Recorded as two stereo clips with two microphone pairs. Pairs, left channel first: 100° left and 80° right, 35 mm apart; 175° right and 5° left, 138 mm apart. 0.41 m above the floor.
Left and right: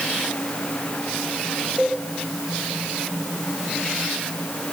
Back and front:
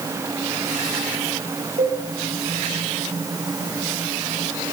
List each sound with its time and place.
1.8 s a cowbell: straight ahead, 6.5 m